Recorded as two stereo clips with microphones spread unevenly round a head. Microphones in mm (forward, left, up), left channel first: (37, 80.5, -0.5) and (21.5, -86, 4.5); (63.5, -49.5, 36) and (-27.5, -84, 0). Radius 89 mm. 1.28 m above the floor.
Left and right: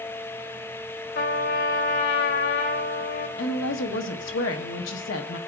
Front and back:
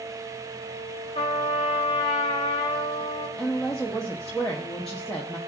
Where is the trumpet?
70° left, 1.1 m.